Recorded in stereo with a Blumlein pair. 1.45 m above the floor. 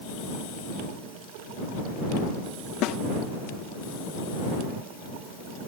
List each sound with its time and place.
2.8 s a snare drum: 35° left